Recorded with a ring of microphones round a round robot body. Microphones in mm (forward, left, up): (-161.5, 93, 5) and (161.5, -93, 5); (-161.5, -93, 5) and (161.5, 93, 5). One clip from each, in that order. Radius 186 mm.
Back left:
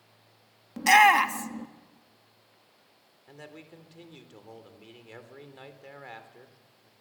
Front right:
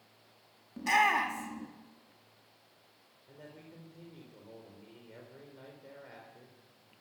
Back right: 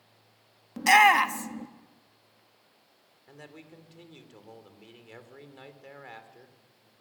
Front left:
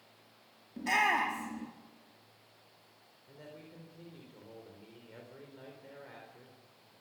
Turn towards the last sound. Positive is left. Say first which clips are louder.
# back left 5 dB, back right 3 dB
turn(degrees=175)